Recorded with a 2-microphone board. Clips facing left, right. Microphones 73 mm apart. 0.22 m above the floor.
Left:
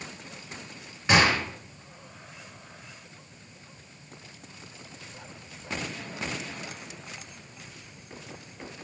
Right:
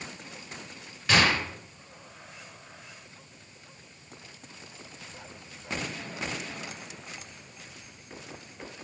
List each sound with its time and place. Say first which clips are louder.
1.1 s a gunshot: left 2 dB; 25° left (ahead or behind), 2.5 m